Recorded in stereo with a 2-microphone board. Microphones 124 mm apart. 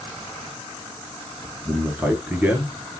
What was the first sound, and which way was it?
A man speaking, 15° right (ahead or behind).